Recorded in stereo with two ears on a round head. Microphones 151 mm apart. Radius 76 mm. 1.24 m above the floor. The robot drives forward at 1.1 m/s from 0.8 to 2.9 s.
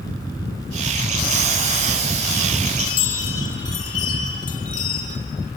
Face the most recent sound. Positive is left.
turn(degrees=50)  # may be behind; listen again after turning